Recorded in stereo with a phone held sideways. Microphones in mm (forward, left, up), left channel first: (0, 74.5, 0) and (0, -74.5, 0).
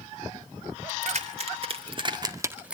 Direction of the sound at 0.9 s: 55° right (ahead or behind).